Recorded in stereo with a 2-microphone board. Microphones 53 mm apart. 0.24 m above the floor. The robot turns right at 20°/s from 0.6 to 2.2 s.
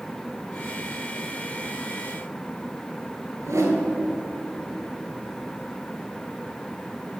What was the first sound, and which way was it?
A whoosh, 75° right (ahead or behind).